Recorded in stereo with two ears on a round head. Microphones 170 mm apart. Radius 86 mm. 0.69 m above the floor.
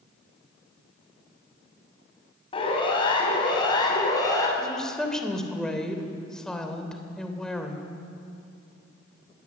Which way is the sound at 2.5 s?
30° left (ahead or behind).